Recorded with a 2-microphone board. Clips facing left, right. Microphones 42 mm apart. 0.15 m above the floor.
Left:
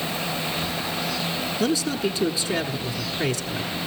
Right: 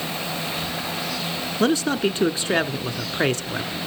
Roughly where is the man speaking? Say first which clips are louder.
Right 4 dB; right.